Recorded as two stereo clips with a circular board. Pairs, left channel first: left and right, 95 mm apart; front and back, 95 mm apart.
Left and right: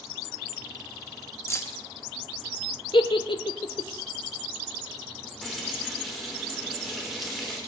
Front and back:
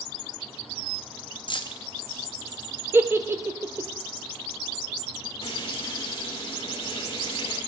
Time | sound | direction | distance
1.5 | keys jangling | 30° left | 0.8 m
2.9 | a giggle | 115° left | 0.7 m
5.4 | frying | straight ahead | 3.5 m